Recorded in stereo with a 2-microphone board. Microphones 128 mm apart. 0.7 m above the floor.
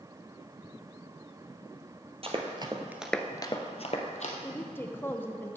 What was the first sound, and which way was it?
Running footsteps, 50° right (ahead or behind).